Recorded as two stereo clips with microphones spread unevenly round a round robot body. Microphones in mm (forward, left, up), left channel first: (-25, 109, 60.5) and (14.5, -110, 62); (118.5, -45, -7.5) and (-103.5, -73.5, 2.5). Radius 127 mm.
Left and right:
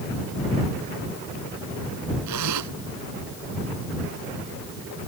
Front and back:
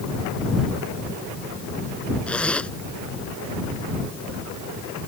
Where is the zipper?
80° right.